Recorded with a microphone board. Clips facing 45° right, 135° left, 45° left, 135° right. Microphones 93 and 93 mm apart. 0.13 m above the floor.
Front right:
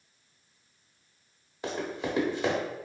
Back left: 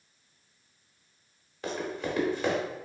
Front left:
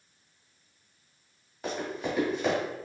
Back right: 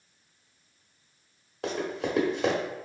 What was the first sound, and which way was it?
Running footsteps, 120° right.